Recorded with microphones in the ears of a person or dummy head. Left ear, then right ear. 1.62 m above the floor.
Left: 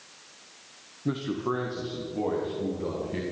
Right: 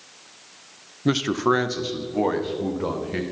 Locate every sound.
1.1 s a man speaking: 75° right (ahead or behind), 0.7 m; by 3.2 s 45° right (ahead or behind), 2 m